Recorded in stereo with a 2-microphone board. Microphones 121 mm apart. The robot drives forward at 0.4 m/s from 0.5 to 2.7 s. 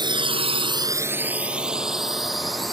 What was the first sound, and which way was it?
A drone, 40° right (ahead or behind).